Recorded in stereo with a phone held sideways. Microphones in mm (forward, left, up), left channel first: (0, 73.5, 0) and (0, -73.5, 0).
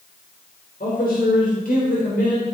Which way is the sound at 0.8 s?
80° left.